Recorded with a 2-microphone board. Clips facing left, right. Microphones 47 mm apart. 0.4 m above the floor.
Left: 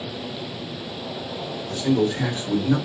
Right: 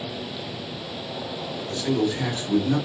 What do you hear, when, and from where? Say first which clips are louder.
1.7 s a man speaking: left 3 dB; 25° left (ahead or behind), 1.1 m